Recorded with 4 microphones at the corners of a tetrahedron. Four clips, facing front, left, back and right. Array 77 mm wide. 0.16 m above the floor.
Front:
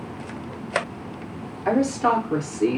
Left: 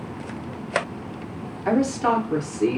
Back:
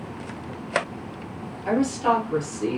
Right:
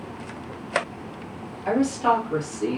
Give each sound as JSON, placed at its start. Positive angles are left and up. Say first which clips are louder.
{"t": 1.6, "sound": "a woman speaking", "louder": "even, front 1 dB", "azimuth_deg": 40, "distance_m": 3.0}